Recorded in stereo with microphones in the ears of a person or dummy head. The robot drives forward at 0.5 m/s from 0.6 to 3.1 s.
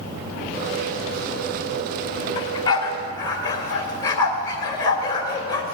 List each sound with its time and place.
2.4 s a dog barking: 30° left (ahead or behind), 1.4 m; by 5.6 s 25° left (ahead or behind), 1.7 m